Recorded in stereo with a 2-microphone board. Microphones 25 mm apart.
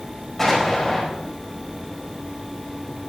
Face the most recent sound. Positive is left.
turn(degrees=15)  # may be behind; listen again after turning